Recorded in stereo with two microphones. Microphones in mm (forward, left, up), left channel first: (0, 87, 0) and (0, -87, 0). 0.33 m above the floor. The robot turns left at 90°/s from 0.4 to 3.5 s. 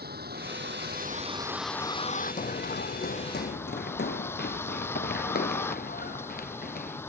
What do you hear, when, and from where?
0.0 s a vehicle: 70° right; by 7.1 s 15° left
2.4 s running footsteps: 50° left (ahead or behind); by 7.0 s 60° left (ahead or behind)